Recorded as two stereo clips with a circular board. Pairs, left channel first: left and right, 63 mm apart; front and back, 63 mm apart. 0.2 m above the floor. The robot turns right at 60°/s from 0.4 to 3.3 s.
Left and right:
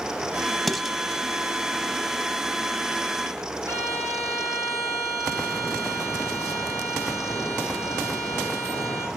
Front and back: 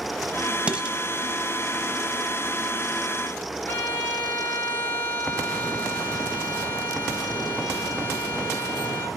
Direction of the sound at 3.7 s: 60° right.